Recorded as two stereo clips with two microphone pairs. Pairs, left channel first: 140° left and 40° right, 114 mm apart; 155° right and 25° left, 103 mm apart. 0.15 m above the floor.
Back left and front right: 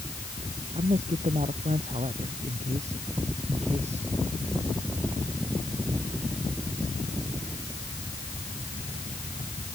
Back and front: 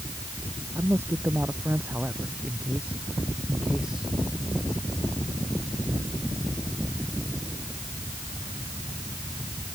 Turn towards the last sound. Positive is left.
turn(degrees=-60)